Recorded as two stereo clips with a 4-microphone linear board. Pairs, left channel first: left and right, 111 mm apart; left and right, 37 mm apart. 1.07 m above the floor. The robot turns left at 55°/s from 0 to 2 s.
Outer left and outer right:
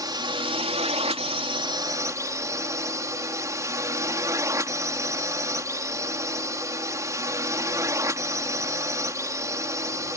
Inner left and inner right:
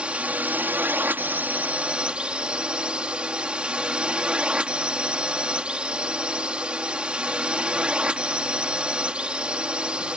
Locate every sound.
0.0 s a drone: 40° right; by 10.2 s 150° right